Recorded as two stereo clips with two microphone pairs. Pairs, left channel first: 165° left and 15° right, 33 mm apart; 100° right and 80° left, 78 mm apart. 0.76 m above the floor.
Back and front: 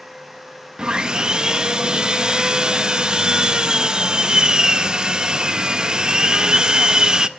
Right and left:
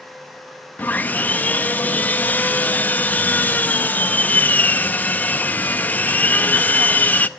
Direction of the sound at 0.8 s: 50° right.